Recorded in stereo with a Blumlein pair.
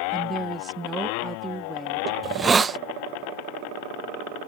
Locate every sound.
0.1 s a woman speaking: 15° right
2.2 s a hiss: 15° right